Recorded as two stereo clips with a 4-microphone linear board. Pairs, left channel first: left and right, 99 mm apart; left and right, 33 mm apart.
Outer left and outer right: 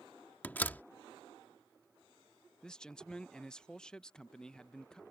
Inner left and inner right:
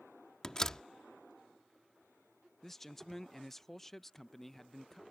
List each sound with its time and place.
0.4 s a door slam: 20° left (ahead or behind)
2.6 s a man speaking: 10° left (ahead or behind)